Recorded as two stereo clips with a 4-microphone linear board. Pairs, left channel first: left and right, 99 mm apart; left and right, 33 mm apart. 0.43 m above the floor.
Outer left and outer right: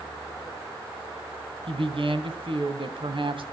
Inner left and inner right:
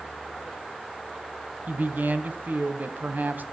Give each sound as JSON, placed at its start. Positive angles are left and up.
{"t": 1.7, "sound": "a woman speaking", "side_deg": -65, "distance_m": 2.5}